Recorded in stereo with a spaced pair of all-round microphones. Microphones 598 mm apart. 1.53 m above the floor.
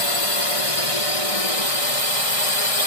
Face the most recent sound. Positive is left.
turn(degrees=65)  # may be behind; listen again after turning